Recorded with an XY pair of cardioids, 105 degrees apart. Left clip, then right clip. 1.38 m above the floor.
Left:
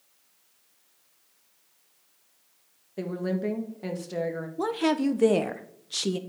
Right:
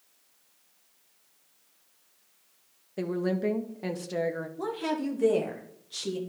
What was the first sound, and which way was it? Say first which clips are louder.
A woman speaking: right 1 dB; 15° right.